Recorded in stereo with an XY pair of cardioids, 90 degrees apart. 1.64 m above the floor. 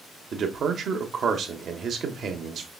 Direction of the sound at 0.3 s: 65° right.